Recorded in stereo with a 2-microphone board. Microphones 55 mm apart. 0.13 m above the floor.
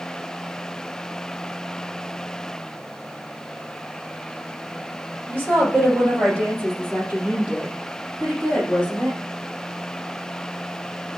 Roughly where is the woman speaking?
Right.